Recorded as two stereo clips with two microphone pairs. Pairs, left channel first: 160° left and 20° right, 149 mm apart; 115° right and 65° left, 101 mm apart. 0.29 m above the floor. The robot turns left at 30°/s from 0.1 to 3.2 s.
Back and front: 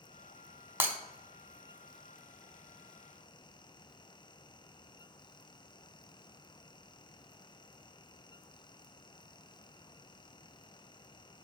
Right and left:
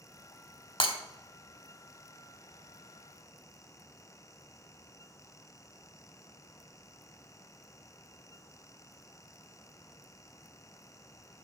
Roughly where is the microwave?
I don't hear a microwave.